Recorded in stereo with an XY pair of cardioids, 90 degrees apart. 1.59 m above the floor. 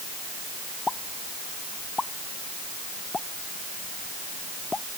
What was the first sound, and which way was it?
A pop, 30° left.